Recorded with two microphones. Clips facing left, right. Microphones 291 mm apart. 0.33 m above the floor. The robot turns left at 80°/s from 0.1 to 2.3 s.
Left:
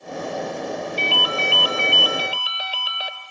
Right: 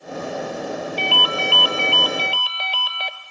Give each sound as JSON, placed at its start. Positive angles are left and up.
{"t": 1.0, "sound": "a ringtone", "side_deg": 20, "distance_m": 0.9}